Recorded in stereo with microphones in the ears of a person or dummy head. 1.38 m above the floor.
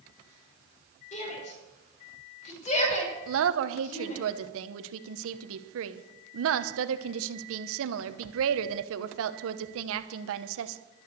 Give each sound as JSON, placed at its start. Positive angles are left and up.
{"t": 1.1, "sound": "a shout", "side_deg": 40, "distance_m": 5.5}
{"t": 3.3, "sound": "a woman speaking", "side_deg": -80, "distance_m": 1.0}